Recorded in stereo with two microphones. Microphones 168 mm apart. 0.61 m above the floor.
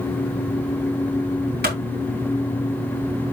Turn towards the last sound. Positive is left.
turn(degrees=-80)